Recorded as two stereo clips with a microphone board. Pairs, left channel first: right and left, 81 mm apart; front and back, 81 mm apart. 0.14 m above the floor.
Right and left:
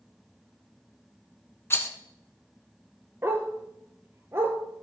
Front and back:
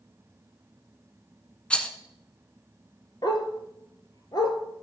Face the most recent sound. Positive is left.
turn(degrees=30)